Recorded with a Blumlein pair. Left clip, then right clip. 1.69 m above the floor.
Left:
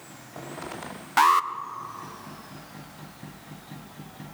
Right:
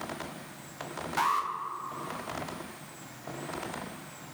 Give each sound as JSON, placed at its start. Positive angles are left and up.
{"t": 1.2, "sound": "an alarm", "azimuth_deg": 25, "distance_m": 0.5}